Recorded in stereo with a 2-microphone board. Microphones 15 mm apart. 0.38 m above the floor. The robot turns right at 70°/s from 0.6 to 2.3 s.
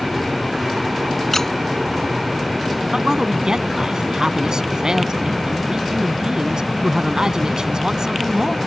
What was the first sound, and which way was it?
A squeak, 25° left (ahead or behind).